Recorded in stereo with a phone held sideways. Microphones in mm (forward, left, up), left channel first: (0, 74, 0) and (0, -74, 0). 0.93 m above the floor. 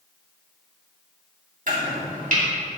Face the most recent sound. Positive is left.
turn(degrees=-60)  # may be behind; listen again after turning